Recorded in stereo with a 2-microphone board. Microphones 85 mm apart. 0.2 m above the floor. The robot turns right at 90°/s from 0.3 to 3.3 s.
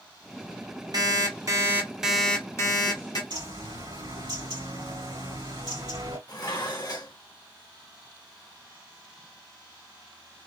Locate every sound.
0.9 s an alarm clock: 100° right, 1.1 m; by 3.2 s 100° left, 1.1 m
3.3 s a bird: 60° right (ahead or behind), 2.5 m
6.3 s dishes clattering: 50° left (ahead or behind), 1.1 m